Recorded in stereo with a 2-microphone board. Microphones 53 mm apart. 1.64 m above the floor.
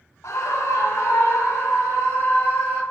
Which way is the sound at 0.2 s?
80° left.